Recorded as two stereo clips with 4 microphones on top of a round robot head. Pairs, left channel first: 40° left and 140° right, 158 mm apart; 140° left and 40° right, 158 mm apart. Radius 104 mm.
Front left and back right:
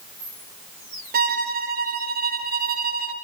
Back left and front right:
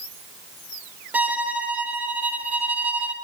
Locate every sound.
1.1 s a violin: 120° right, 1.9 m